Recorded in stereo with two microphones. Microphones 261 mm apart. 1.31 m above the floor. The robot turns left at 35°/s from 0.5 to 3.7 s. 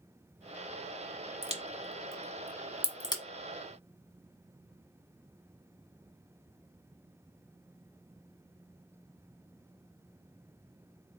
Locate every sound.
1.4 s a crack: 25° right (ahead or behind), 1.3 m; by 3.2 s 20° left (ahead or behind), 1.3 m